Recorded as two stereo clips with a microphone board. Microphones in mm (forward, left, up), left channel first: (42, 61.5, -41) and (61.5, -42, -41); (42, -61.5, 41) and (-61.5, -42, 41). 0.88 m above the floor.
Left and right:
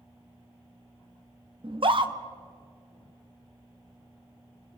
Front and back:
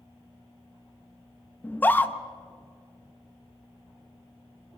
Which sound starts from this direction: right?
A scream, at 1.6 s.